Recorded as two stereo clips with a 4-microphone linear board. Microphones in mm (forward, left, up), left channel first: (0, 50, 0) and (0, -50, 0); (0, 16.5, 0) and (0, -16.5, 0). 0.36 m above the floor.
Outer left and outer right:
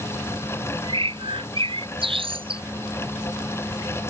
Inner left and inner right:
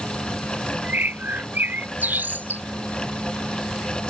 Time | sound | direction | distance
0.8 | a bird | 70° right (ahead or behind) | ?